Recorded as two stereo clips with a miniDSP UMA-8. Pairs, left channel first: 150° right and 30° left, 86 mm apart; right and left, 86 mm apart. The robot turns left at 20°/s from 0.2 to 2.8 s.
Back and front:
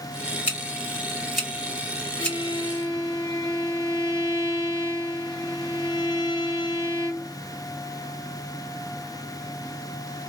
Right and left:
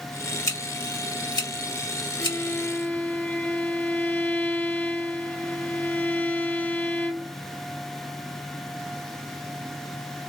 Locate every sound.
0.5 s scissors: 40° right, 1.8 m; by 2.4 s 80° right, 1.8 m
2.2 s a violin: 145° right, 0.7 m; by 7.3 s 155° right, 0.7 m